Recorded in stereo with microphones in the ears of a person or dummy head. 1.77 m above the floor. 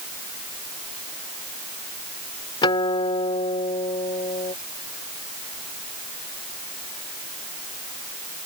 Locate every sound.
2.6 s a guitar: 25° left (ahead or behind)